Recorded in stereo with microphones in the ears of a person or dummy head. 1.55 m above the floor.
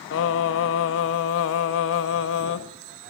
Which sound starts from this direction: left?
Singing, at 0.1 s.